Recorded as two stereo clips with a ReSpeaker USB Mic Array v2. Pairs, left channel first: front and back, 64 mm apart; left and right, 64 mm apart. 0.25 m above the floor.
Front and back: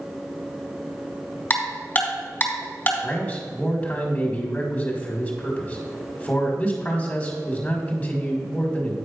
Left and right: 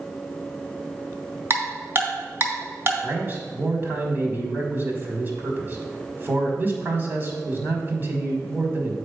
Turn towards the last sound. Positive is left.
turn(degrees=-60)